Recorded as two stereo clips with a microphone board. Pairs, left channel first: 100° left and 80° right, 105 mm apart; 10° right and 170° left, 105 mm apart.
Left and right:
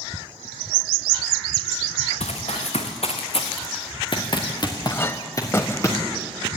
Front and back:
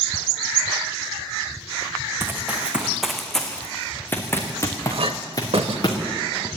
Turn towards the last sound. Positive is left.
turn(degrees=160)